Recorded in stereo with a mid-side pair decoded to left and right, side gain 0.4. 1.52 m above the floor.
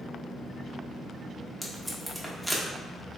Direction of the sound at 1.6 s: 5° right.